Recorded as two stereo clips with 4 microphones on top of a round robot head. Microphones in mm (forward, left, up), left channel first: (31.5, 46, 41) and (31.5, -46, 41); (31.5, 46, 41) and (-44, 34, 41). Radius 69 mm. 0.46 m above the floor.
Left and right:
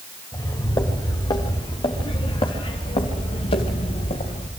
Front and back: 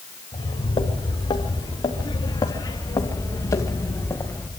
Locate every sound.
0.3 s footsteps: 35° left, 4.5 m; by 4.5 s 70° left, 3.5 m